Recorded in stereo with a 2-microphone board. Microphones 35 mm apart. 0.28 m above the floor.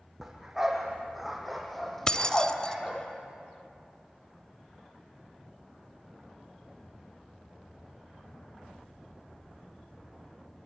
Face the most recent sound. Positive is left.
turn(degrees=20)  # may be behind; listen again after turning